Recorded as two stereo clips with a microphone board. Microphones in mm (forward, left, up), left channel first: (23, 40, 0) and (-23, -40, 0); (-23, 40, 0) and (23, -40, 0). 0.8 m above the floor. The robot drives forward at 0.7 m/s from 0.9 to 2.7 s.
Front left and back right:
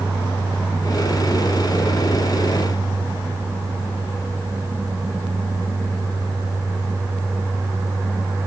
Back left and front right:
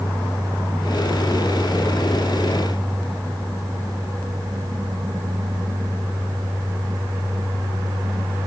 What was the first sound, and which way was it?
Only background noise.